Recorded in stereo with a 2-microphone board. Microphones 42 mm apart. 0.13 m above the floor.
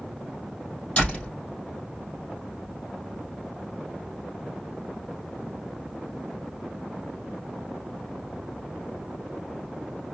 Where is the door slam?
30° left (ahead or behind), 3.5 m.